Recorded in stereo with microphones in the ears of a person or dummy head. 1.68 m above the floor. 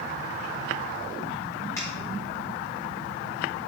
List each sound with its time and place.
1.8 s a finger snap: 10° left (ahead or behind), 1.9 m